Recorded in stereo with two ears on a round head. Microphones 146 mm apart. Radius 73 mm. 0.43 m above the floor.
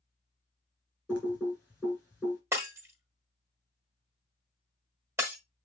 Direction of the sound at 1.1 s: 10° right (ahead or behind).